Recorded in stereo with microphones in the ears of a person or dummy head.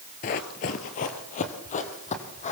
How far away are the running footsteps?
About 1.5 m.